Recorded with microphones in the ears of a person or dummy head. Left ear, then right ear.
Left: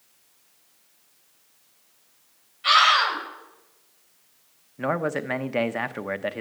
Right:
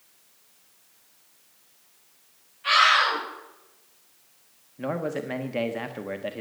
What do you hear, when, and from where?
2.6 s a scream: 35° left (ahead or behind), 7.5 m
4.8 s a man speaking: 45° left (ahead or behind), 0.8 m